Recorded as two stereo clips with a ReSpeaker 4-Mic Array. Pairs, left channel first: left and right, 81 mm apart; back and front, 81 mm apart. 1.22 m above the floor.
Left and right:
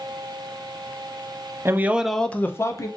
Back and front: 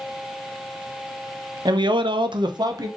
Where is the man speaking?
30° right, 0.7 m; by 2.9 s 40° left, 0.9 m.